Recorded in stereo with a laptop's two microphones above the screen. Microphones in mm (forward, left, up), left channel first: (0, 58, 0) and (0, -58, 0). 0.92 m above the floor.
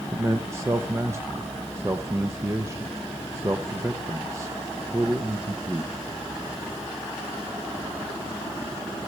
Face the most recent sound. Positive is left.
turn(degrees=-20)  # may be behind; listen again after turning